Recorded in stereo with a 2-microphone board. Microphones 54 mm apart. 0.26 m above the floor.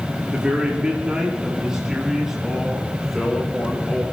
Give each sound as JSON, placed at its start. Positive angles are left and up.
{"t": 0.3, "sound": "a man speaking", "side_deg": -20, "distance_m": 5.0}